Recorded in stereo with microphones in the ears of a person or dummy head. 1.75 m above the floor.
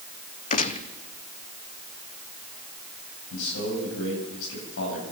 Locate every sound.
0.5 s a gunshot: 35° left (ahead or behind), 1.0 m
3.3 s a man speaking: 70° left (ahead or behind), 9.5 m